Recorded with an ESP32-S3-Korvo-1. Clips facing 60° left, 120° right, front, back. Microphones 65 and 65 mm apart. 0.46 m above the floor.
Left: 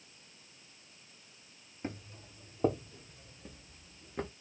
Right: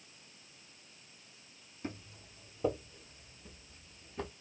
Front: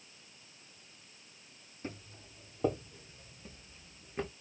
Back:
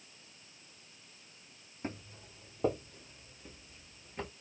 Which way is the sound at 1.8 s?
120° left.